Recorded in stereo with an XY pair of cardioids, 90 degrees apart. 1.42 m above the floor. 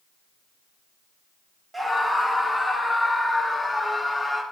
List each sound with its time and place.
1.7 s a scream: 10° right, 1.7 m; by 4.4 s 5° left, 4 m